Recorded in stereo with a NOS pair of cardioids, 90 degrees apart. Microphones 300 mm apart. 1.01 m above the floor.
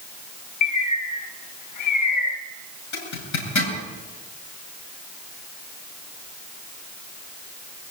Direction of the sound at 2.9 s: 65° left.